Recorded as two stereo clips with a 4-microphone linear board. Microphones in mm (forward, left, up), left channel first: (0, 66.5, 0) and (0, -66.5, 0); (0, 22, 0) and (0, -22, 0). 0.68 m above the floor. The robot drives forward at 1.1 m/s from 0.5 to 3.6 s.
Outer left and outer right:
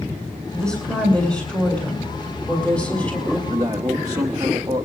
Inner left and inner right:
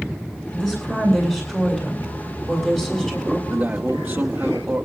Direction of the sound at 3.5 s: 25° right (ahead or behind).